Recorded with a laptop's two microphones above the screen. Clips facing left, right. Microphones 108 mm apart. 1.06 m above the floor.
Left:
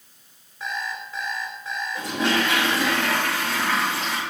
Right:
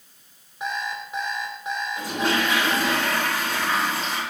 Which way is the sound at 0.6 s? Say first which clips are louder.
Right 2 dB; 20° right (ahead or behind).